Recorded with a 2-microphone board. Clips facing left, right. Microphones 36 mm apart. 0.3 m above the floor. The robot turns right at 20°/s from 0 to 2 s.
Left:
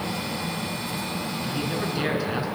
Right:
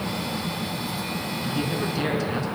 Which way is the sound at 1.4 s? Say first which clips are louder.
Right 2 dB; centre (ahead or behind).